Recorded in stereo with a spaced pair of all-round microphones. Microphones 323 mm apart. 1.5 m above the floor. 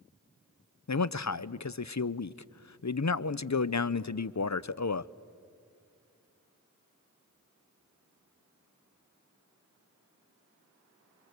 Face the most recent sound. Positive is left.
turn(degrees=60)  # may be behind; listen again after turning